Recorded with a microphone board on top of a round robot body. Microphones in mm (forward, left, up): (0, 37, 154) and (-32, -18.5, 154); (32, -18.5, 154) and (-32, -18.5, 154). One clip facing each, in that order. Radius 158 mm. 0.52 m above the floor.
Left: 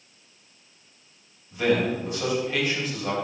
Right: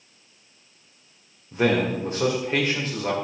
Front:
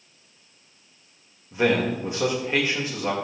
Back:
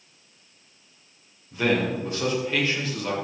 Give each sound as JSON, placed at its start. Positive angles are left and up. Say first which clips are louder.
{"t": 1.5, "sound": "a man speaking", "louder": "right 1 dB, front 2 dB", "azimuth_deg": -70, "distance_m": 2.5}